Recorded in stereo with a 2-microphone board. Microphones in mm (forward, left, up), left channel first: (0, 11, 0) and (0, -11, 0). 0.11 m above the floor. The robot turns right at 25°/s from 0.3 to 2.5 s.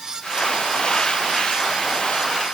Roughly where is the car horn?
No car horn in this recording.